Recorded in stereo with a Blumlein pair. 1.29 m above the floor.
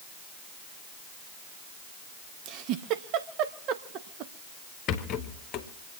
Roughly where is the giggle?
Ahead right.